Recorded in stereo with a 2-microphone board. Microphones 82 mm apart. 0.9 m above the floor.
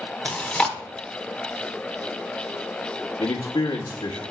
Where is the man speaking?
70° left (ahead or behind), 1.2 m.